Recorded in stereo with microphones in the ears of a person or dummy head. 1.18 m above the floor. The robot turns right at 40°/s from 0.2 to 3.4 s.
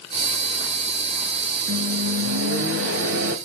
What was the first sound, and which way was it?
A microwave, 125° right.